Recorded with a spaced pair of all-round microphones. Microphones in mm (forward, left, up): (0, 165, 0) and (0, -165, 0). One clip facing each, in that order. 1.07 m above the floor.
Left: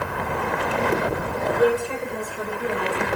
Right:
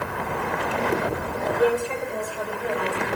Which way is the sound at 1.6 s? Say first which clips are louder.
Left 1 dB; 20° left (ahead or behind).